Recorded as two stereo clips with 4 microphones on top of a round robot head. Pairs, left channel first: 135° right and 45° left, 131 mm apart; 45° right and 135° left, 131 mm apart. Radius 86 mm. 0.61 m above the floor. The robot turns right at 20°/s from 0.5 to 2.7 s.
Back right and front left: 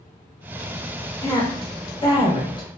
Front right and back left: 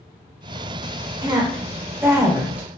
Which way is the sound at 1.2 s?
Straight behind.